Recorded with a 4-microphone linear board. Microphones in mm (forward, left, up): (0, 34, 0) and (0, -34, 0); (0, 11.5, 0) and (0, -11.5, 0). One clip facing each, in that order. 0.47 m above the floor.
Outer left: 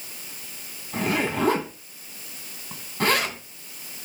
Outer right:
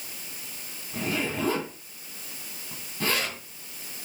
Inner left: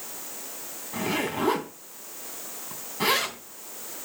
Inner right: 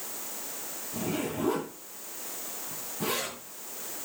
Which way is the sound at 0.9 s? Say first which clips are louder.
Outer left 5 dB, inner left 5 dB; 75° left (ahead or behind).